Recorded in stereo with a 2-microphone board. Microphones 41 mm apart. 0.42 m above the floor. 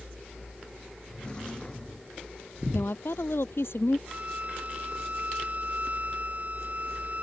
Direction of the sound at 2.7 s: 70° left (ahead or behind).